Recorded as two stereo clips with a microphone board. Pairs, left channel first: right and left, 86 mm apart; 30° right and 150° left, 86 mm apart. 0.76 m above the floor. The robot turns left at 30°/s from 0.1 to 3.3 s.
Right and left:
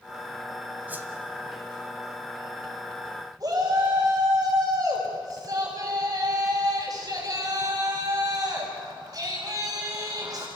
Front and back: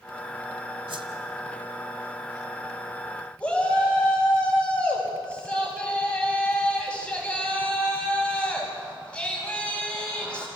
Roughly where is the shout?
Ahead left.